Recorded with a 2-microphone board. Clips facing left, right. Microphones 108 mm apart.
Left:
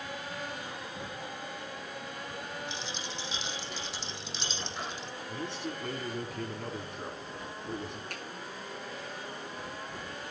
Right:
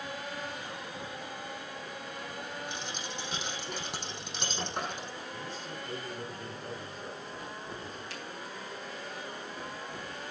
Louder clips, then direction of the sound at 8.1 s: Left 1 dB; 50° left (ahead or behind).